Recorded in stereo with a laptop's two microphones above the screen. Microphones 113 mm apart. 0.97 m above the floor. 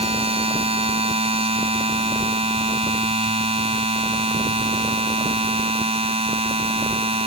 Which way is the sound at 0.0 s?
65° right (ahead or behind).